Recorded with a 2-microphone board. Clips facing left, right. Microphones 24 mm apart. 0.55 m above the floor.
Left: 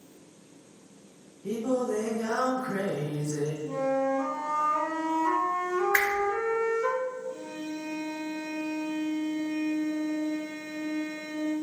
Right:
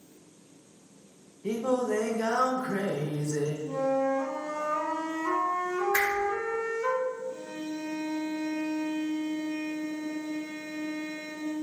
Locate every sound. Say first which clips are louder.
1.4 s singing: right 1 dB; 75° right (ahead or behind), 0.6 m
3.7 s a flute: even; 15° left (ahead or behind), 0.9 m
5.9 s a whoosh: left 1 dB; 35° left (ahead or behind), 0.9 m
7.3 s a violin: even; 55° left (ahead or behind), 1.6 m